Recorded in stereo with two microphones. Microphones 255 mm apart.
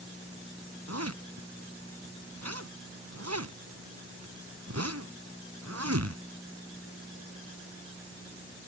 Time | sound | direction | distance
0.9 | a zipper | 80° right | ?